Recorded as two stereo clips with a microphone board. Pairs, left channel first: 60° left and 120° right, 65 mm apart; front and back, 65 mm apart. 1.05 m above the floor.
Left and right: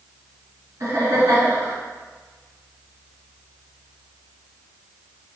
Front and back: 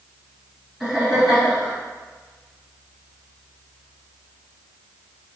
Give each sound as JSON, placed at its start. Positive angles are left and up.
{"t": 0.8, "sound": "laughter", "azimuth_deg": -90, "distance_m": 1.7}